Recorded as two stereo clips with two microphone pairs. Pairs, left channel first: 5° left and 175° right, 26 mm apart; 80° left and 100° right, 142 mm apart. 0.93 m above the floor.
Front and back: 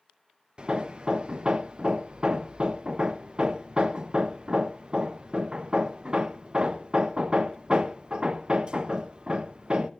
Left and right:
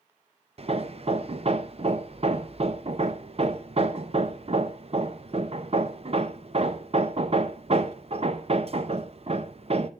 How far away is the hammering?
About 0.7 m.